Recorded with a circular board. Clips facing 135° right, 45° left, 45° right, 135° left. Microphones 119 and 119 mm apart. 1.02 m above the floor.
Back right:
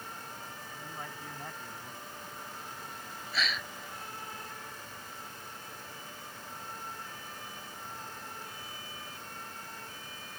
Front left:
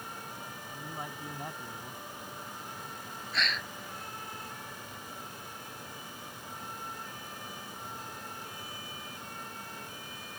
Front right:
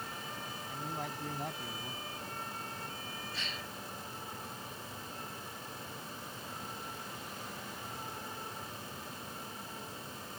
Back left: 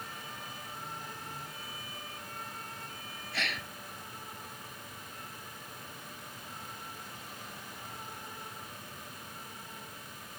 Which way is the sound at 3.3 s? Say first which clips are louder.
Even, back left 5 dB; 140° left.